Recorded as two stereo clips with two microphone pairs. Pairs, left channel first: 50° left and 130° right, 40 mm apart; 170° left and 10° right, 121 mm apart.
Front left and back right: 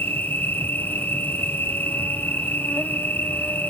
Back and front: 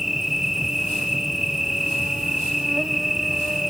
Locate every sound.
0.0 s an insect: 80° left, 1.1 m